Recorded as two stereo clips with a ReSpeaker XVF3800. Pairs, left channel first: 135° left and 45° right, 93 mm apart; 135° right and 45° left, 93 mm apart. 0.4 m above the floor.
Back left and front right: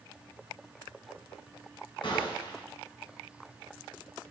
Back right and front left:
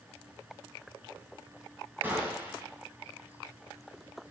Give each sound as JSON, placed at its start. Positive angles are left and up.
{"t": 2.0, "sound": "a gunshot", "azimuth_deg": 115, "distance_m": 2.0}